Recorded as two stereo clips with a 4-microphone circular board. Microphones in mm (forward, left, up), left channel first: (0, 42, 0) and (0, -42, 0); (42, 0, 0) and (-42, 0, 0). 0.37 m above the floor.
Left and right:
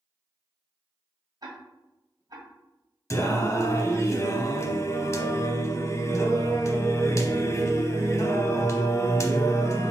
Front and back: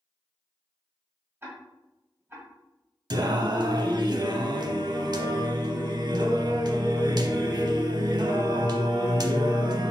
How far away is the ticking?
About 1.4 m.